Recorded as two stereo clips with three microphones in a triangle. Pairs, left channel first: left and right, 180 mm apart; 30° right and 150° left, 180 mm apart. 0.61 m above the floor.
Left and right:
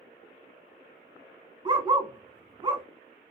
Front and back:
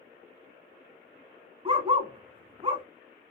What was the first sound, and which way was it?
A dog barking, 150° right.